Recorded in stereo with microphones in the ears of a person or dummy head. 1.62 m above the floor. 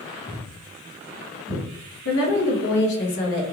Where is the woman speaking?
60° left (ahead or behind), 0.6 m.